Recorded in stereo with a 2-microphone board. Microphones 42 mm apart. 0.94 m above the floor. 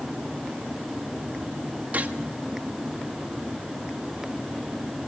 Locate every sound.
1.9 s a gunshot: 40° right (ahead or behind), 1.3 m